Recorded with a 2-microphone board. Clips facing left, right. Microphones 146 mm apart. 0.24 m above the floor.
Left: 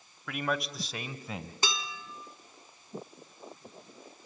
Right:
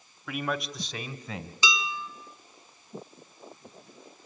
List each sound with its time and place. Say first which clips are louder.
0.3 s a man speaking: right 1 dB; 5° right (ahead or behind), 1.0 m; by 1.5 s 5° left (ahead or behind), 1.6 m
1.6 s dishes clattering: right 7 dB; 60° left (ahead or behind), 1.4 m